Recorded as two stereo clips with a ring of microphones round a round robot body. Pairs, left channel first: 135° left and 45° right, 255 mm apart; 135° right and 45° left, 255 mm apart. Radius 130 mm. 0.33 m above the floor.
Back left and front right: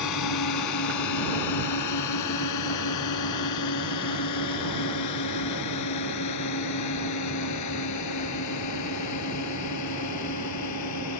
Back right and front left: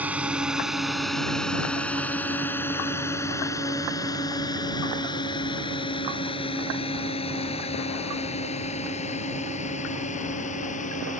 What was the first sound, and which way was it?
A drone, 130° left.